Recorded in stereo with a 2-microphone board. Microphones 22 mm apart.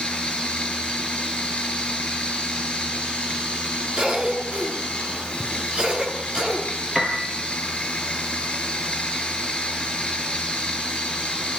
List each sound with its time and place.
0.0 s running water: 50° left (ahead or behind), 8 m
4.0 s a cough: 40° right (ahead or behind), 9 m
7.0 s a piano: centre (ahead or behind), 6.5 m